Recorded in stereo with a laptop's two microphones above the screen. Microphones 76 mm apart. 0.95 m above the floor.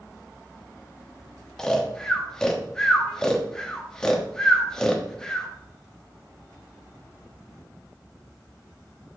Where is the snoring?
10° left (ahead or behind), 1.1 m.